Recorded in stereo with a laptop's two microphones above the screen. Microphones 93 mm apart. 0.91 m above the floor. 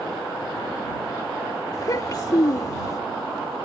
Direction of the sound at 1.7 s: 40° left (ahead or behind).